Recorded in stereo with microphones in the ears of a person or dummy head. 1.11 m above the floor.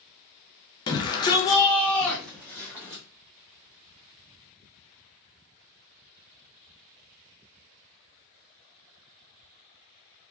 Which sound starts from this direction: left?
A shout, at 0.9 s.